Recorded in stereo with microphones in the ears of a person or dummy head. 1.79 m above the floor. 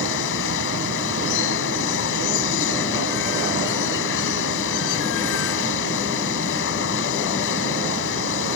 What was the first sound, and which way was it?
Running water, 65° left (ahead or behind).